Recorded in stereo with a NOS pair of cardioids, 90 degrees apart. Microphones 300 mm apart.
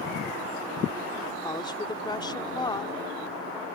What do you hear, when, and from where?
1.4 s a woman speaking: 15° left